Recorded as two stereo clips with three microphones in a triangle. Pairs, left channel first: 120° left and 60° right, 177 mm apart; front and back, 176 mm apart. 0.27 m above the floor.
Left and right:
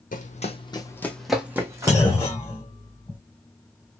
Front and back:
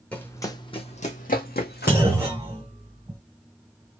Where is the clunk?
140° left, 1.2 m.